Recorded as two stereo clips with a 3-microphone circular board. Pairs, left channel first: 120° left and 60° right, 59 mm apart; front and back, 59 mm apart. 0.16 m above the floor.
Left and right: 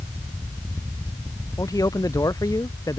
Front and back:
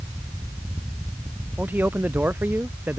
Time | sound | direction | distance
1.6 | a man speaking | 120° left | ?